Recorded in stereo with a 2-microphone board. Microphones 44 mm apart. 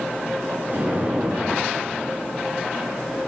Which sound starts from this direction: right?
An explosion, at 0.7 s.